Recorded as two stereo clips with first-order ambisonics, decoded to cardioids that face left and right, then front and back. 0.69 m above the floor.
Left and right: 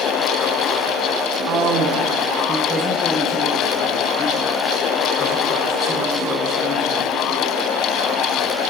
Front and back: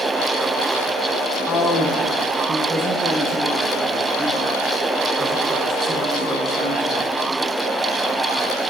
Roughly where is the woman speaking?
Right.